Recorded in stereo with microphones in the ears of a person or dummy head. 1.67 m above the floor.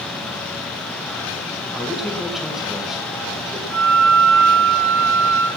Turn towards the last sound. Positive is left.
turn(degrees=-75)  # may be behind; listen again after turning